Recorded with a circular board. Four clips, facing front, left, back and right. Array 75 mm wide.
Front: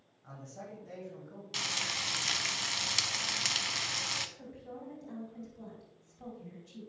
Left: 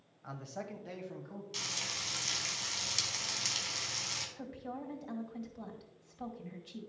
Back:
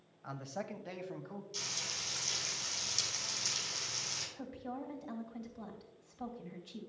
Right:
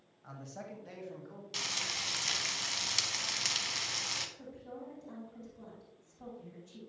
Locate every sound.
0.2 s a man speaking: 155° left, 1.3 m; by 1.4 s 175° left, 1.8 m
1.5 s frying: 15° right, 0.9 m
4.4 s a woman speaking: 130° left, 2 m